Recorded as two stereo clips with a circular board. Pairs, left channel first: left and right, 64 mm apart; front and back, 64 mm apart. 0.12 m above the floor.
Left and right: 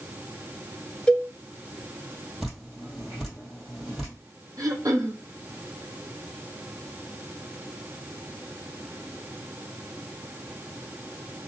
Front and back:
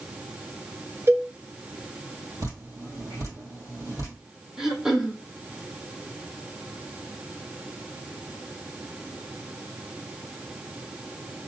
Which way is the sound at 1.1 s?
160° left.